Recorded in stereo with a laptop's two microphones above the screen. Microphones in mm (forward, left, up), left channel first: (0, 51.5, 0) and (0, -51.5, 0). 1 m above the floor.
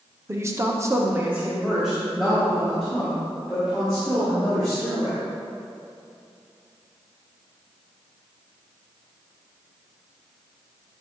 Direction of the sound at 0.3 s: 25° right (ahead or behind).